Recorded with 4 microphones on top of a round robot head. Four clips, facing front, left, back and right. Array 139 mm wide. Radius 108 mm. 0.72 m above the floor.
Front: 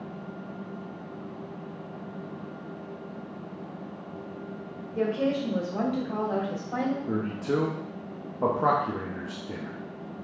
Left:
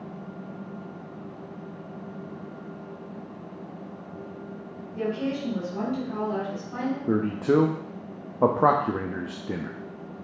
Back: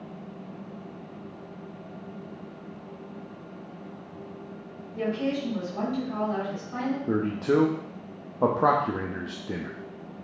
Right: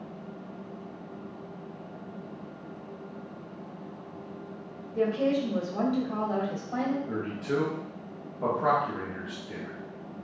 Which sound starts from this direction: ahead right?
A woman speaking, at 5.0 s.